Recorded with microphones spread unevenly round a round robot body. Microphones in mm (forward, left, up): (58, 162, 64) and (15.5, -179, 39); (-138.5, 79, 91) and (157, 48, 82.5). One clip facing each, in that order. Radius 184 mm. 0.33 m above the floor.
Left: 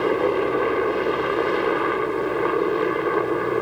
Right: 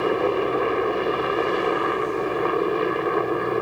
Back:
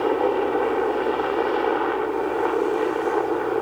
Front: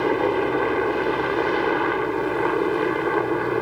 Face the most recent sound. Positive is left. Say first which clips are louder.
# left 1 dB, even
turn(degrees=-10)